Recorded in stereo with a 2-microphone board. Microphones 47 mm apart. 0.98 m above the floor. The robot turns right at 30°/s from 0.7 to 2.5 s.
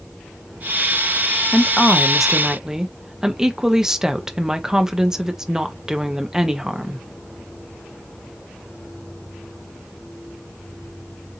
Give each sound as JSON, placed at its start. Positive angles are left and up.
{"t": 1.5, "sound": "a woman speaking", "side_deg": 10, "distance_m": 0.9}